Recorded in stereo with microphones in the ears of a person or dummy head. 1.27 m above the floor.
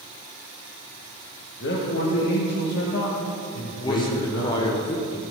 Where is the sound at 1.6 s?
60° left (ahead or behind), 1.5 m.